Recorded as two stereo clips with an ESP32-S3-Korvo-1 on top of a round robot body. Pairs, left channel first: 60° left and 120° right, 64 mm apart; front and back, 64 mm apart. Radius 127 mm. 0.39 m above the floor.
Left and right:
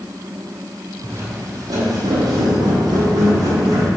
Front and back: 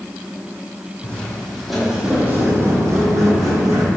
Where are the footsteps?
65° right, 1.3 m; by 3.9 s 155° right, 1.8 m.